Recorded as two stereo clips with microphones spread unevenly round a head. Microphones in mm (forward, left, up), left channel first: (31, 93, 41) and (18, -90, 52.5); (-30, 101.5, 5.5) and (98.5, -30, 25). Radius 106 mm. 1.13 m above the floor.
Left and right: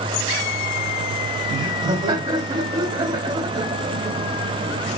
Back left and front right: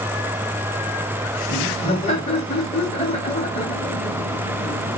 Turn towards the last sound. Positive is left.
turn(degrees=-165)